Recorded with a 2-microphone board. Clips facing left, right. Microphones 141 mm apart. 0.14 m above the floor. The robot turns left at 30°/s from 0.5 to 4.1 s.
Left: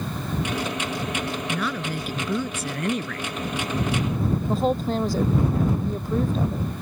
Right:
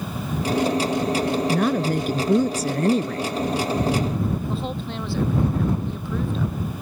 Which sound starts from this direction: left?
A woman speaking, at 4.5 s.